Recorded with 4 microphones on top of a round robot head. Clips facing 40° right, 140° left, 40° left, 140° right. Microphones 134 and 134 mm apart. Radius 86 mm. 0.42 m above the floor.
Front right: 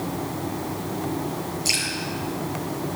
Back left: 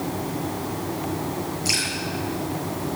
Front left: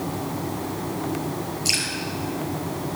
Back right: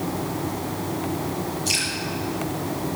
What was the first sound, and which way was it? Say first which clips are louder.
Dripping: back left 2 dB, back right 1 dB; 25° left.